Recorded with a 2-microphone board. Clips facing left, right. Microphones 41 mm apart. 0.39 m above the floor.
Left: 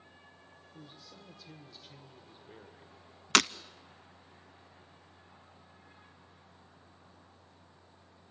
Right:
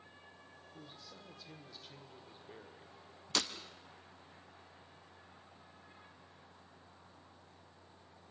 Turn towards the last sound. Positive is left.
turn(degrees=75)  # may be behind; listen again after turning